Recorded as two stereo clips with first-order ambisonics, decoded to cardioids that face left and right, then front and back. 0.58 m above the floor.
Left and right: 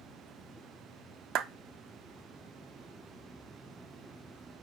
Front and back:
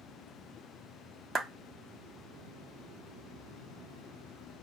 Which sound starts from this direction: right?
A clap, at 1.4 s.